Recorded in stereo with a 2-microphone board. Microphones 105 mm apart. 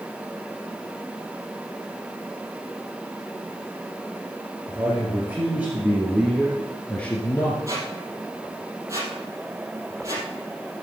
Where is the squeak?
30° right (ahead or behind), 3.5 m.